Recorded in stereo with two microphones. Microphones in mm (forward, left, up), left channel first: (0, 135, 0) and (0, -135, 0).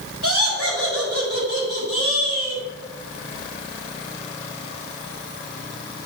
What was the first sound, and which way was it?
Laughter, 55° right (ahead or behind).